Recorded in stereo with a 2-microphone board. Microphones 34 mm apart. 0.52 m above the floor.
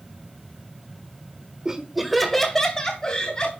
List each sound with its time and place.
1.6 s laughter: 20° right (ahead or behind), 1.4 m; by 3.5 s 25° left (ahead or behind), 3.5 m